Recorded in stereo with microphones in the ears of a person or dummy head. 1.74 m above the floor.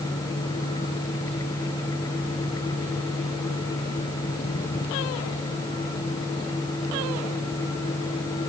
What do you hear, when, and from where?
Only background noise.